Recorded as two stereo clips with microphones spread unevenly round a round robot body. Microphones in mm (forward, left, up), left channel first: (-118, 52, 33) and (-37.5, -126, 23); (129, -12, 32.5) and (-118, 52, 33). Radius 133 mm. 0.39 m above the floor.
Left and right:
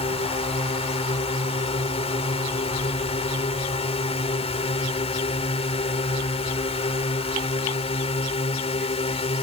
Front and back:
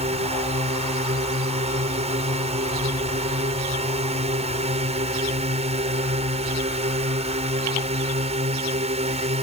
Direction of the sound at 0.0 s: 130° left.